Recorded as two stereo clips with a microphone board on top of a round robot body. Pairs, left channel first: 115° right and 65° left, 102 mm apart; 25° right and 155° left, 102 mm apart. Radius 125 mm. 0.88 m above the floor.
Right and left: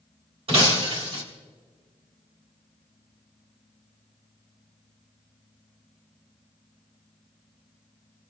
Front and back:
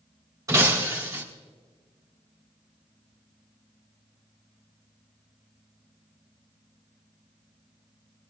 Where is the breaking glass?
100° left, 3 m.